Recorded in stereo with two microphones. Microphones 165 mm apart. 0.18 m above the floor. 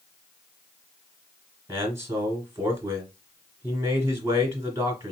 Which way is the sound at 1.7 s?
15° right (ahead or behind).